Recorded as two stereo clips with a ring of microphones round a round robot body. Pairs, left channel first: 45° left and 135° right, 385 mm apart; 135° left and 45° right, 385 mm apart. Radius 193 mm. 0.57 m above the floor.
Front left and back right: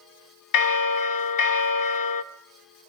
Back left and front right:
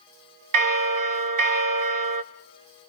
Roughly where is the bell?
Ahead.